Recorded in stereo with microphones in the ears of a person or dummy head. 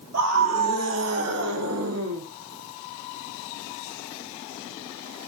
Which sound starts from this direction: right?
A scream, at 0.1 s.